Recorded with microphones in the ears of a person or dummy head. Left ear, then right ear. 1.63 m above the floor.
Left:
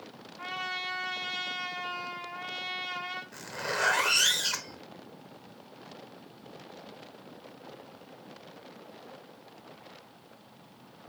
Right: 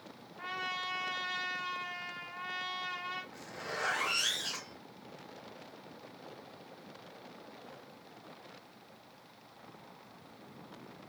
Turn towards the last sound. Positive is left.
turn(degrees=45)  # may be behind; listen again after turning